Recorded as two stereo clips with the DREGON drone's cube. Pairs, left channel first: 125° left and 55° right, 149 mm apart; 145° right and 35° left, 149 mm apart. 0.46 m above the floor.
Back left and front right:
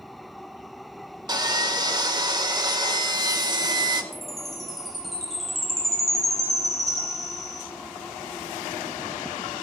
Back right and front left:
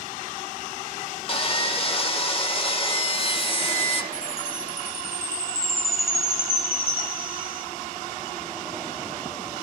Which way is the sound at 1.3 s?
110° right.